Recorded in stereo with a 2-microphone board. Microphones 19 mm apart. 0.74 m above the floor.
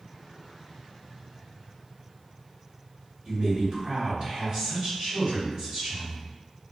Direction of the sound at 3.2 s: 65° right (ahead or behind).